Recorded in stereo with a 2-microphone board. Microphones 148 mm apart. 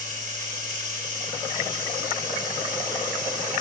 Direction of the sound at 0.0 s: 60° right (ahead or behind).